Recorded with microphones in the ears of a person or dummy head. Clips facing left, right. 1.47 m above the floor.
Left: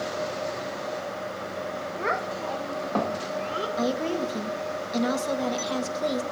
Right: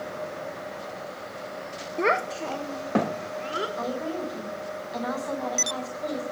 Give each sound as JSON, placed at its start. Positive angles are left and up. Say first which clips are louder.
{"t": 2.0, "sound": "a child speaking", "louder": "right 6 dB", "side_deg": -50, "distance_m": 0.5}
{"t": 3.8, "sound": "a woman speaking", "louder": "left 8 dB", "side_deg": 40, "distance_m": 1.6}